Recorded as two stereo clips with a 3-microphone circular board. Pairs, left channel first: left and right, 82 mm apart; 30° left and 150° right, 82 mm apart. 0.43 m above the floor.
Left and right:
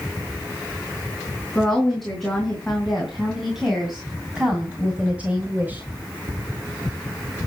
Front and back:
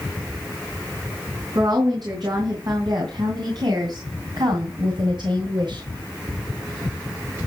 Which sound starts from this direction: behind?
A woman speaking, at 1.6 s.